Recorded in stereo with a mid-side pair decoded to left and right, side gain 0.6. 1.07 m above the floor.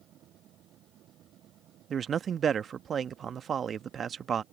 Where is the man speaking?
40° right.